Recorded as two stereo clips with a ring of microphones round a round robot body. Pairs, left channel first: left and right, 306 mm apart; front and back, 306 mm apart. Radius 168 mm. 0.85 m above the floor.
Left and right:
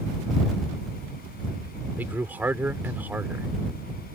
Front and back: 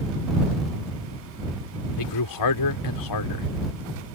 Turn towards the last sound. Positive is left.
turn(degrees=-5)